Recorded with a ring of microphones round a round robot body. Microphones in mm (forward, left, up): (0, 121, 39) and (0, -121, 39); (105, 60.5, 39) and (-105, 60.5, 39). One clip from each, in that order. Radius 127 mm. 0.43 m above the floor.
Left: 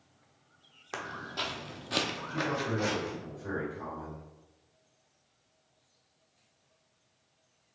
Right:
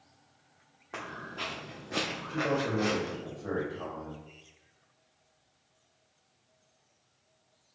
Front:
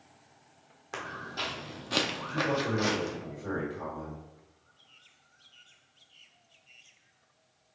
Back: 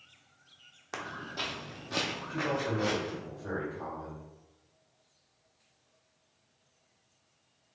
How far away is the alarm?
I don't hear an alarm.